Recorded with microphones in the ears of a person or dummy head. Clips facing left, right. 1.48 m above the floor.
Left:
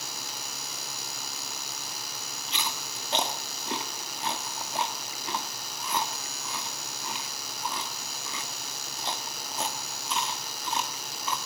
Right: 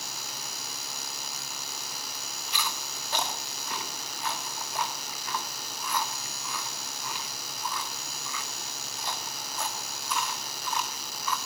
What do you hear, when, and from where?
2.5 s chewing: 25° left (ahead or behind), 1.8 m